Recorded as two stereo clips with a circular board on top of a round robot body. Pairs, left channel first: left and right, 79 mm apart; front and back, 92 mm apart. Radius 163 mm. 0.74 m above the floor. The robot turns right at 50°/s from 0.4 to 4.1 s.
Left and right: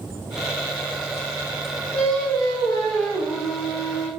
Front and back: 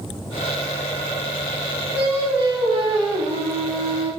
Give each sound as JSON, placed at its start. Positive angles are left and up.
{"t": 1.9, "sound": "singing", "azimuth_deg": 105, "distance_m": 0.9}